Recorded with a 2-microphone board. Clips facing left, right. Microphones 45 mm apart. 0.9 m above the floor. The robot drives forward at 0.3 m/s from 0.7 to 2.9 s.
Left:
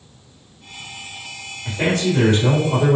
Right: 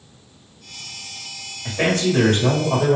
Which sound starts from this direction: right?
A man speaking, at 1.6 s.